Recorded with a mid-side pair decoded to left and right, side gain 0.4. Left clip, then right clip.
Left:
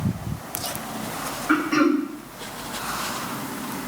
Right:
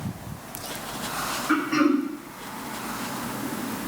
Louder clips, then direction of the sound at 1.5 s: Left 3 dB; 20° left.